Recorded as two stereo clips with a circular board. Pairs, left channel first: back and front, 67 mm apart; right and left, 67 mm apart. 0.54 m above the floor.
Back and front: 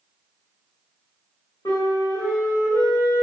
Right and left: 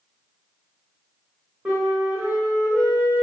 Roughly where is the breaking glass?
No breaking glass in this recording.